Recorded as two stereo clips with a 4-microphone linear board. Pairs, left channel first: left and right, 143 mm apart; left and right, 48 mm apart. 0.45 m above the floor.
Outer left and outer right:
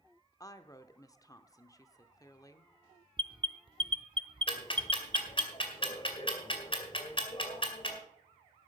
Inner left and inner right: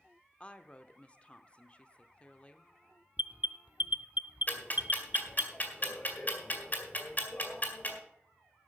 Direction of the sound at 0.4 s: 25° left (ahead or behind).